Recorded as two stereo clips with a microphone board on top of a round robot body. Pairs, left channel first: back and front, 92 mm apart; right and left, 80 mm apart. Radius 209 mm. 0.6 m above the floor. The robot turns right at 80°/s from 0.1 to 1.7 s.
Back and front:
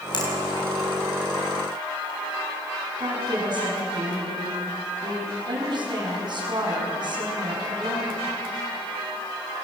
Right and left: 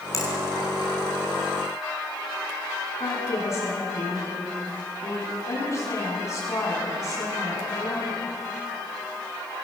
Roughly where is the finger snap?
Behind right.